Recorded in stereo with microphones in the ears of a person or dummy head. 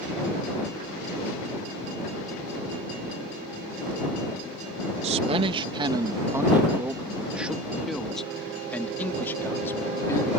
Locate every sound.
5.0 s a man speaking: 35° right (ahead or behind); by 10.3 s 15° left (ahead or behind)